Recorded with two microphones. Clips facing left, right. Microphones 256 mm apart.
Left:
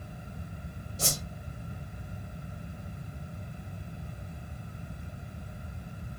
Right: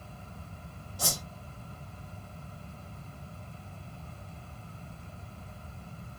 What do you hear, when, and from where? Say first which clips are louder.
1.0 s a whoosh: left 1 dB; 25° left (ahead or behind), 1.5 m